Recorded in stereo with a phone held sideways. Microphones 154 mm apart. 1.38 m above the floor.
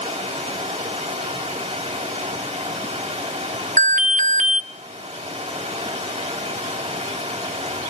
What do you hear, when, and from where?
0.0 s running water: 45° right (ahead or behind), 7 m
3.8 s an alarm: 50° right (ahead or behind), 0.9 m